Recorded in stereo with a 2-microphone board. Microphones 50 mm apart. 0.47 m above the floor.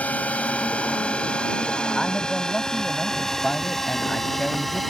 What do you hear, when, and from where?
0.0 s a drone: 30° left (ahead or behind); by 4.9 s centre (ahead or behind)
1.9 s a man speaking: 10° left (ahead or behind)